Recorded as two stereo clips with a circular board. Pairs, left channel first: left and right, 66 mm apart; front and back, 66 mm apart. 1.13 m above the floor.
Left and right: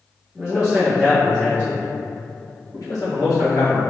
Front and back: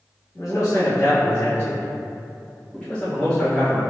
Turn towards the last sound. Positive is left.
turn(degrees=90)